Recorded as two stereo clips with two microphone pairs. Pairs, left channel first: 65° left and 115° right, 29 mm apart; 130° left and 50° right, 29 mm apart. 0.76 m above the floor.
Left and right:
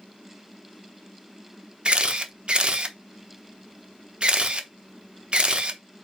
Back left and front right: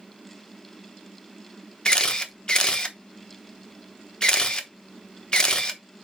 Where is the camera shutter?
170° right, 0.9 m.